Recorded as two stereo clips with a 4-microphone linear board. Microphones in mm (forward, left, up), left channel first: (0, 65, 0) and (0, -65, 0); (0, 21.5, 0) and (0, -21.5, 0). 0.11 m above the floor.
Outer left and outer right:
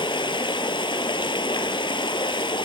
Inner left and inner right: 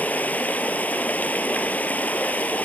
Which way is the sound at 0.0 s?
40° left (ahead or behind).